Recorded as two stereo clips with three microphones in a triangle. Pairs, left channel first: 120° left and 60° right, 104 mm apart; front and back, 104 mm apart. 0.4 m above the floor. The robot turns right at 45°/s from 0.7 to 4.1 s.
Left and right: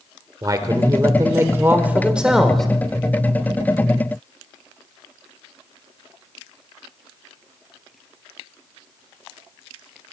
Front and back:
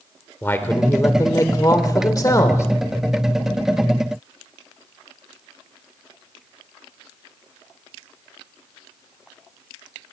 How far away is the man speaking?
About 1.2 m.